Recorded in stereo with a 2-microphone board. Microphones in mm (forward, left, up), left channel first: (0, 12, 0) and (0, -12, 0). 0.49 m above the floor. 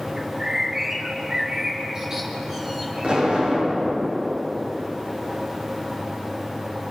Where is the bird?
25° right (ahead or behind), 4.5 m.